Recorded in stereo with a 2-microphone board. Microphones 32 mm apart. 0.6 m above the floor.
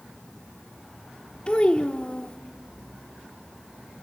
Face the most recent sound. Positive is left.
turn(degrees=35)  # may be behind; listen again after turning